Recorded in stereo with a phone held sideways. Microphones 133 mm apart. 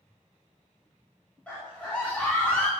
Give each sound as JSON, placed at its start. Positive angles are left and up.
{"t": 1.5, "sound": "a scream", "side_deg": 10, "distance_m": 3.0}